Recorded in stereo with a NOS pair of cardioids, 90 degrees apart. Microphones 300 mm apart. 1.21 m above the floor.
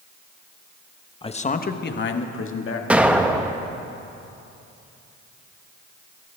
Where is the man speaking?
20° left, 1.0 m; by 2.8 s 50° left, 2.0 m.